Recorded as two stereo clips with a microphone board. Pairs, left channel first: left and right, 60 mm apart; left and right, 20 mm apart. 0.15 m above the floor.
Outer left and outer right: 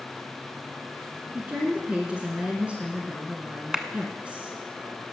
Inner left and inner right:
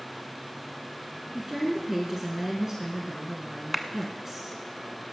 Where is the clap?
15° right (ahead or behind), 1.0 m.